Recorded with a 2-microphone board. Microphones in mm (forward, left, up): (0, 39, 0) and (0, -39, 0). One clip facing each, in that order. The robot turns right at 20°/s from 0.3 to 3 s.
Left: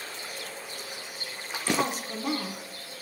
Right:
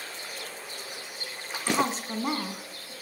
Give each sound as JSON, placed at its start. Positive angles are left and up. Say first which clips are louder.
{"t": 1.7, "sound": "a woman speaking", "louder": "right 1 dB", "side_deg": -25, "distance_m": 1.5}